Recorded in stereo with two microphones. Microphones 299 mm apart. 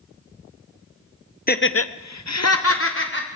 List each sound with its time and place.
1.5 s laughter: 30° left (ahead or behind), 0.7 m; by 3.3 s 40° left (ahead or behind), 1.5 m